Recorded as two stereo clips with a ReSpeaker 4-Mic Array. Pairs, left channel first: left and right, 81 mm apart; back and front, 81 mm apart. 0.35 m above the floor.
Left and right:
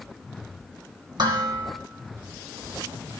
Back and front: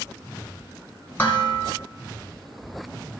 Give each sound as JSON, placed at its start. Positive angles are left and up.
{"t": 1.2, "sound": "dishes clattering", "azimuth_deg": -110, "distance_m": 2.5}